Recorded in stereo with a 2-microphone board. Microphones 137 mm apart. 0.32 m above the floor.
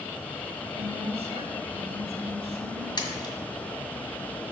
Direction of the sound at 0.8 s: 50° right (ahead or behind).